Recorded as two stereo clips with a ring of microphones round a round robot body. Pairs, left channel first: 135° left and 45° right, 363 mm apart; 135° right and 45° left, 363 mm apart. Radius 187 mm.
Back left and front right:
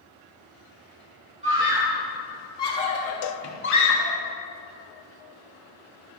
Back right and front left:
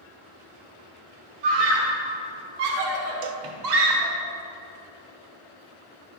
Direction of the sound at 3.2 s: 90° left.